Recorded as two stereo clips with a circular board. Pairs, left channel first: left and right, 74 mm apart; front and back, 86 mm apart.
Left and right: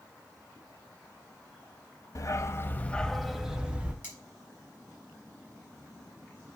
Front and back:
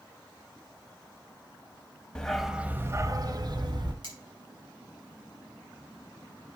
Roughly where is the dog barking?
Left.